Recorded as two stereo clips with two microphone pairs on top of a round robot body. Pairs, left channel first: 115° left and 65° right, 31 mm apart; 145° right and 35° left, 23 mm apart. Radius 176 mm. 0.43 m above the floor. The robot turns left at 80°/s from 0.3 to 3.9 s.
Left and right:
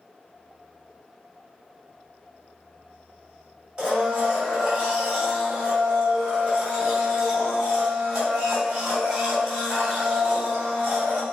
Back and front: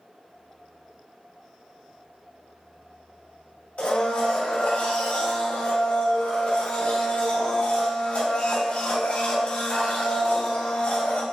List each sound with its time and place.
3.8 s a blender: 120° right, 2.5 m; by 11.2 s 130° right, 2.5 m